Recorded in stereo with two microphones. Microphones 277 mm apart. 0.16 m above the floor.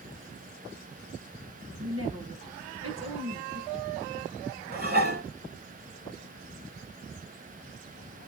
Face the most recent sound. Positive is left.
turn(degrees=-35)  # may be behind; listen again after turning